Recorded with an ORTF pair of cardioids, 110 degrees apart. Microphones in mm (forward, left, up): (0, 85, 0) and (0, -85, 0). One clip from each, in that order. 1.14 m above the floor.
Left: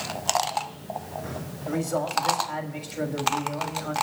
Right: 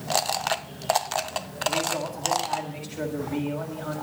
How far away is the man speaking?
About 6.5 m.